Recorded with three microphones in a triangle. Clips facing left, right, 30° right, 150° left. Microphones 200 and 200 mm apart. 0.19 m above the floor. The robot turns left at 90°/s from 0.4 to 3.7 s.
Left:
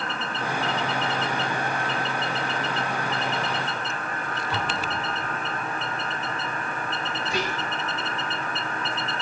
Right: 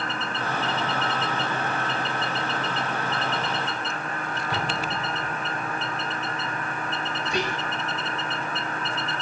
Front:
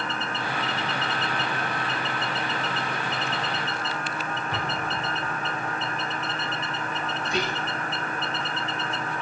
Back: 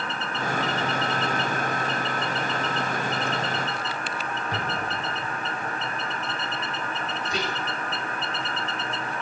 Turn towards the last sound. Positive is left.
turn(degrees=175)